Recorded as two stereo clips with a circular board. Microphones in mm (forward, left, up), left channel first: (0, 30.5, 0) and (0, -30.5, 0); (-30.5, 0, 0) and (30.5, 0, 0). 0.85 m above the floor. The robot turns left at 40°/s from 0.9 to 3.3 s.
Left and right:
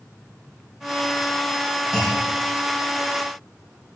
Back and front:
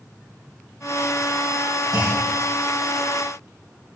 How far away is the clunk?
About 3.5 m.